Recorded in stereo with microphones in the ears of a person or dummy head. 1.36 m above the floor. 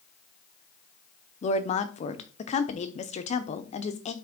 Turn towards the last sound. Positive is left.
turn(degrees=40)  # may be behind; listen again after turning